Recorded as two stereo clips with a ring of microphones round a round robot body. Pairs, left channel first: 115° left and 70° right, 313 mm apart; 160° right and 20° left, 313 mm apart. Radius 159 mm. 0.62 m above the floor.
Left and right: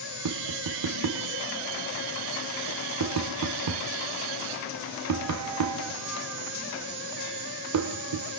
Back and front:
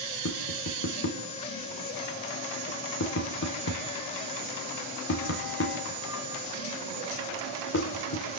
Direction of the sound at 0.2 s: 105° right.